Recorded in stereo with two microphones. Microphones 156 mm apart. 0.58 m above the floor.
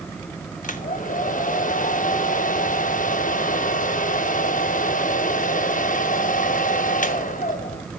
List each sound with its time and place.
0.6 s a hair dryer: 55° left (ahead or behind), 0.7 m